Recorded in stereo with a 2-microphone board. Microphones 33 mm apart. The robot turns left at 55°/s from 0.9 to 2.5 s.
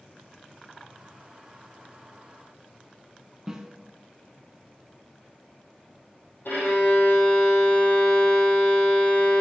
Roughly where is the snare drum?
Centre.